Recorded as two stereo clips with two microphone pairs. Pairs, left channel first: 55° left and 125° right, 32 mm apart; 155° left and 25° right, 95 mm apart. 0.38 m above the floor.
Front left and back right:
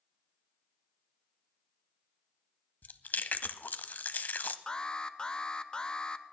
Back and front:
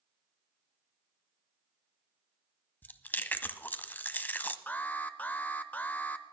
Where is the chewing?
80° left, 0.6 m.